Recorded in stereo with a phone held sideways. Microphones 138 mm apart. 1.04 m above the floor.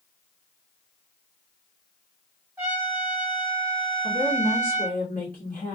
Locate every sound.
2.6 s a trumpet: 20° right (ahead or behind), 0.9 m
4.0 s a woman speaking: 80° left, 1.6 m